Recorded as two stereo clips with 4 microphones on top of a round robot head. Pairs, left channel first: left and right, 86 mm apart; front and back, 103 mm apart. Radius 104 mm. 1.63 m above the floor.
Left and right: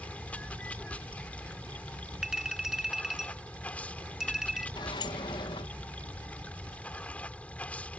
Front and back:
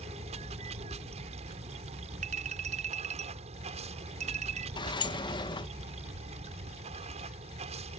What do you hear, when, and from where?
0.0 s running water: 165° left
2.2 s a clink: 175° right
4.8 s a sliding door: 40° left